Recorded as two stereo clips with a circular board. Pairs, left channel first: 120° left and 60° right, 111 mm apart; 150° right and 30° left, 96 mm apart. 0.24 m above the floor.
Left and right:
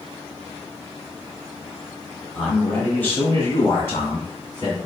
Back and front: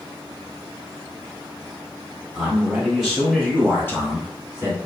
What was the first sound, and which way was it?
A man speaking, 60° left.